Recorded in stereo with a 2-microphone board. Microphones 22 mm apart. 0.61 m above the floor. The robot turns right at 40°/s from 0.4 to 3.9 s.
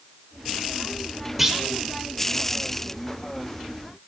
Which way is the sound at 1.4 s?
10° right (ahead or behind).